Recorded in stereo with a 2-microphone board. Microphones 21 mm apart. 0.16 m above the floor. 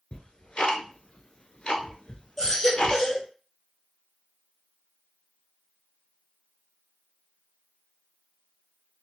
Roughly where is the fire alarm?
I don't hear a fire alarm.